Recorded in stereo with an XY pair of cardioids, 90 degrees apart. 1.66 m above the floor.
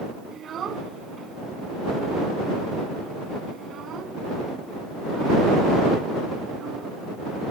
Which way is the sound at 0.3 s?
60° right.